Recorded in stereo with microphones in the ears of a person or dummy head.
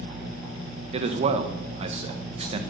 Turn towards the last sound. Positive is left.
turn(degrees=-30)  # may be behind; listen again after turning